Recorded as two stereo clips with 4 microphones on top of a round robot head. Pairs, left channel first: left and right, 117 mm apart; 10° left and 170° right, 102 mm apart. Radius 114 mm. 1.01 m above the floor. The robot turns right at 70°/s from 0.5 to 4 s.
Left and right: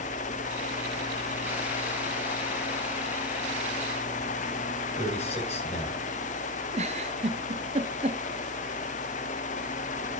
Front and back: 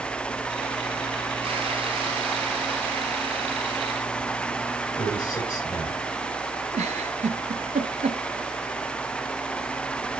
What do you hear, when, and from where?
5.0 s a man speaking: 65° left, 7.5 m
6.7 s a giggle: 135° right, 0.7 m